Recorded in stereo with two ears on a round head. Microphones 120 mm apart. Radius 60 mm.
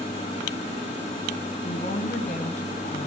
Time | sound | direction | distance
1.6 | a woman speaking | 70° left (ahead or behind) | 4 m